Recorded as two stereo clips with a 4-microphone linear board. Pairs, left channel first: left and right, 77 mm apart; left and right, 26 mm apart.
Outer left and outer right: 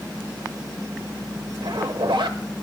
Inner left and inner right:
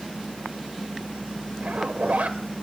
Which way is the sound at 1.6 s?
90° right.